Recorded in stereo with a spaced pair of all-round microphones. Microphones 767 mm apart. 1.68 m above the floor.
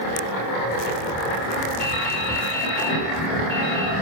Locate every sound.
1.8 s dripping: 5° right (ahead or behind), 7.5 m